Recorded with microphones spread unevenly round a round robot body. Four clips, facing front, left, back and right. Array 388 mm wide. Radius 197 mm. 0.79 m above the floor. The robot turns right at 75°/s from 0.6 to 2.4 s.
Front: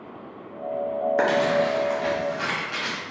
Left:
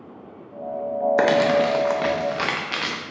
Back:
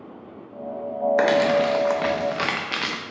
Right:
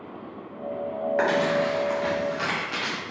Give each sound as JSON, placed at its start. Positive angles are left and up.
{"t": 1.2, "sound": "crumpling", "azimuth_deg": 85, "distance_m": 0.7}